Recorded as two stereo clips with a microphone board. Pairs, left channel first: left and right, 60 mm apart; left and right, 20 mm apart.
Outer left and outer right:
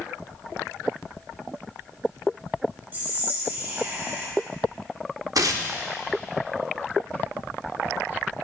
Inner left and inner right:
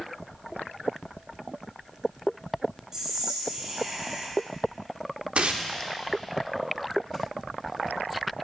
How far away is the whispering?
About 1.6 m.